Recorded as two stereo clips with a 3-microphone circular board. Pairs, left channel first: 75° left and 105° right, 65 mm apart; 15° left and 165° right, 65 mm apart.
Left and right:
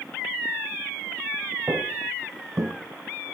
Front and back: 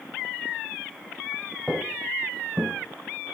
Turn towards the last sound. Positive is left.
turn(degrees=-130)